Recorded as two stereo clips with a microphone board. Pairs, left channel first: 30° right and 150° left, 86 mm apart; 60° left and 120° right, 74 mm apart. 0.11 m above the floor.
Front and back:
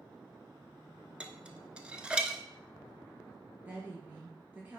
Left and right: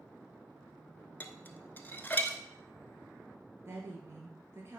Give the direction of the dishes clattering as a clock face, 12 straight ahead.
9 o'clock.